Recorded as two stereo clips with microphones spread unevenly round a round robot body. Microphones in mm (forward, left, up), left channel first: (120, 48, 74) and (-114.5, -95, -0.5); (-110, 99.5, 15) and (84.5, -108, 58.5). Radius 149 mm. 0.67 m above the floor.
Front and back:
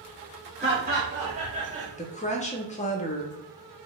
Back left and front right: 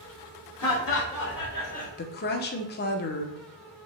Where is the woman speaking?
105° left, 0.6 m.